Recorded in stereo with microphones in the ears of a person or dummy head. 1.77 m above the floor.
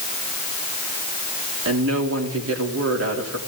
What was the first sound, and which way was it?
A woman speaking, 75° right (ahead or behind).